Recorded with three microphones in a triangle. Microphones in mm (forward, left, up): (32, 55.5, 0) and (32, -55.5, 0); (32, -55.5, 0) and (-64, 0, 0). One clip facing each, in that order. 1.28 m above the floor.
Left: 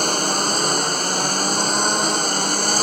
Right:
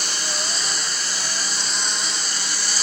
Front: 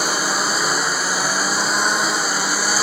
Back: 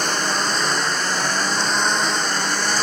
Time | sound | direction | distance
0.0 | a lawn mower | 50° left | ?